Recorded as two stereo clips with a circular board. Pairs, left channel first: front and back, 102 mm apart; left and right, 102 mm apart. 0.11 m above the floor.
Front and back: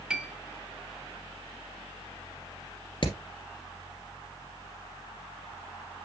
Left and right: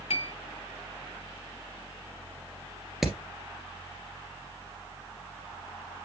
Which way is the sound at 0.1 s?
100° left.